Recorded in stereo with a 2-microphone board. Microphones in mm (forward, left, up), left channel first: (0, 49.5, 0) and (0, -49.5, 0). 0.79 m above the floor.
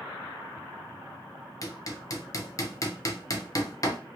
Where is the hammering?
35° left (ahead or behind), 0.6 m.